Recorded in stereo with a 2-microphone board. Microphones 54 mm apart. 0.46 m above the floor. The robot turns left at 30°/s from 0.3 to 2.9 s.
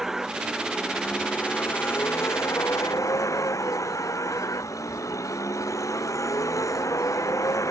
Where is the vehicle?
175° right; by 7.7 s 110° left.